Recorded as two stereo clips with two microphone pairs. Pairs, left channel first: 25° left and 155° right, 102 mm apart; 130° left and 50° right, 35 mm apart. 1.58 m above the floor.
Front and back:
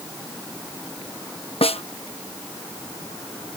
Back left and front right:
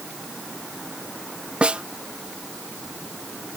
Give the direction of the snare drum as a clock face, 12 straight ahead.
12 o'clock.